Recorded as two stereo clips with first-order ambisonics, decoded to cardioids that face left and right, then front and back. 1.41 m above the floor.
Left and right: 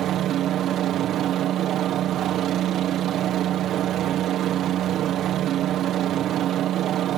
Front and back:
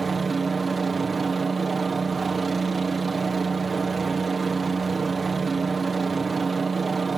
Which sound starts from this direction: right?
A helicopter, at 0.0 s.